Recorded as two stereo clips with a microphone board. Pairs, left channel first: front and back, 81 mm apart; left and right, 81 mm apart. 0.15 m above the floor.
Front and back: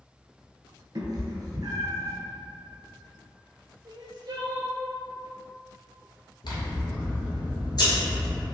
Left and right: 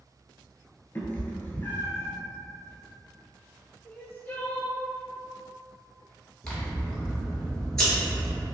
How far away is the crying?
About 0.5 m.